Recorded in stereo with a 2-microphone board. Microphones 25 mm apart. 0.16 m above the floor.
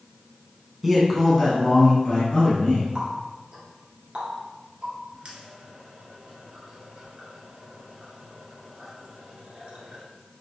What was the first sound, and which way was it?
A man speaking, 10° right (ahead or behind).